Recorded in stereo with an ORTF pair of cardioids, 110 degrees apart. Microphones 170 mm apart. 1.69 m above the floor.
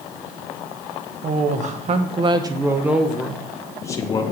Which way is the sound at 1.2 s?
50° right.